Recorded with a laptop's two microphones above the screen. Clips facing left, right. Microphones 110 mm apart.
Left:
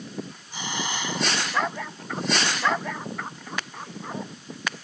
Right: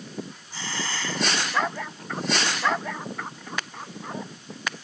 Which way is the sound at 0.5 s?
15° left (ahead or behind).